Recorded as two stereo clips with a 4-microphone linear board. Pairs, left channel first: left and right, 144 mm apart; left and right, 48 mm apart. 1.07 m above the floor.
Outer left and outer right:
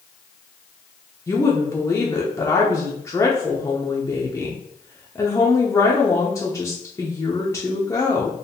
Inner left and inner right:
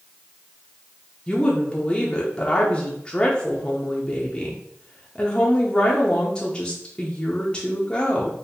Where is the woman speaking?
20° left (ahead or behind), 0.7 m.